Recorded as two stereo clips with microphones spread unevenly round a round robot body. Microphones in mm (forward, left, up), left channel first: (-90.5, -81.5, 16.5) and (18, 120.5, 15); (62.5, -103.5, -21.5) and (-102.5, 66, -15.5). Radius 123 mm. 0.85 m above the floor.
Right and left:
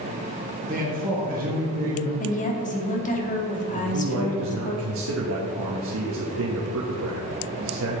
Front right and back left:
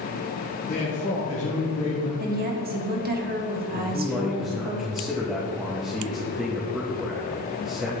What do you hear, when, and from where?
0.7 s a man speaking: 10° left, 1.6 m
2.2 s a woman speaking: 175° right, 1.6 m
3.8 s a man speaking: 45° left, 0.9 m